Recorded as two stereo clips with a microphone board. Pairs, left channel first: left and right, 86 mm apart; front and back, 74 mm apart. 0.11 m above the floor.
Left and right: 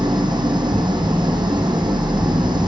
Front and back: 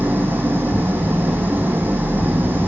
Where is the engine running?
115° right, 1.8 m.